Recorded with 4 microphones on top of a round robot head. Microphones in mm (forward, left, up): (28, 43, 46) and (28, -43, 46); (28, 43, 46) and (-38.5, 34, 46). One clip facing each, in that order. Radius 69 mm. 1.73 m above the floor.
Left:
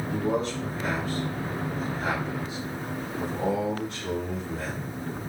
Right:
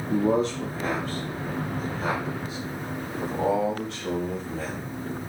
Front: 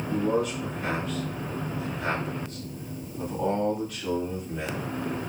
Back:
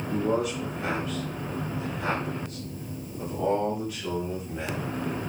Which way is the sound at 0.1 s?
95° right.